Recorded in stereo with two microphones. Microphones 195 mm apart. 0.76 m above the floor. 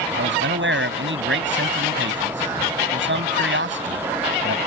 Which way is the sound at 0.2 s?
65° right (ahead or behind).